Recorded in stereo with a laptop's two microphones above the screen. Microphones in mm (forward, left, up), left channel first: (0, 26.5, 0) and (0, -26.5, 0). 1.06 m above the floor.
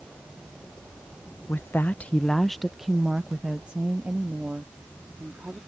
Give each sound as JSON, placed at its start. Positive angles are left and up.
{"t": 1.5, "sound": "a woman speaking", "side_deg": 50}